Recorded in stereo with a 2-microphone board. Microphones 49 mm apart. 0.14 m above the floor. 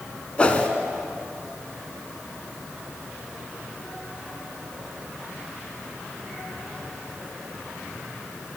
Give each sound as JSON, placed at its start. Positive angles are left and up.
{"t": 0.4, "sound": "a whoosh", "side_deg": 25, "distance_m": 0.8}